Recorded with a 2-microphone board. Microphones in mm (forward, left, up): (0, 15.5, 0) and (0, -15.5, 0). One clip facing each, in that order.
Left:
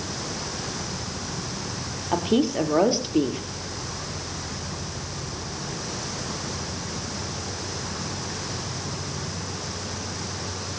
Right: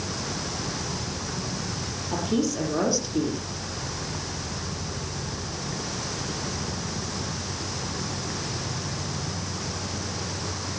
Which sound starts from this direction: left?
A woman speaking, at 2.1 s.